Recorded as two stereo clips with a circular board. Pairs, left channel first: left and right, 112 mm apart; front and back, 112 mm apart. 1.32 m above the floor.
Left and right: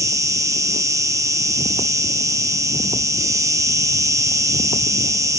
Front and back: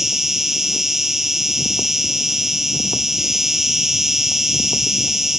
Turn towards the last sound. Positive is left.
turn(degrees=-95)